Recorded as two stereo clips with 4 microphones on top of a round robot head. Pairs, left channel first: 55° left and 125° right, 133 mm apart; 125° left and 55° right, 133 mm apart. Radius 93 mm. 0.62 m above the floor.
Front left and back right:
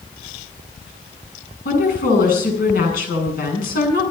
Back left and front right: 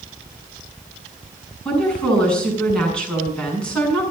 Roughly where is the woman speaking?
Ahead left.